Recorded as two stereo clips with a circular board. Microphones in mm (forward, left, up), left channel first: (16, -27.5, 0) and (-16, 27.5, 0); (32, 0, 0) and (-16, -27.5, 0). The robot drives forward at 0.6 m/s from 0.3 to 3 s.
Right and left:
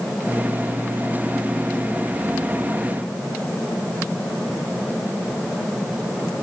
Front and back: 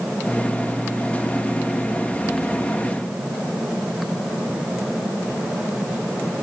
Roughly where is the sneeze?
I don't hear a sneeze.